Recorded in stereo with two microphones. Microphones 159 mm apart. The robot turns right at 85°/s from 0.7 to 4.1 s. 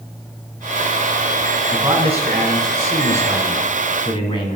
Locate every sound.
1.7 s a man speaking: 170° right, 4 m; by 4.6 s 30° left, 4 m